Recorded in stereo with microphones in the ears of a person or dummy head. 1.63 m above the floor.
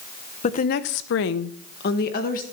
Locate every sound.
0.4 s a woman speaking: 35° left (ahead or behind), 0.9 m; by 2.4 s 40° left (ahead or behind), 1.5 m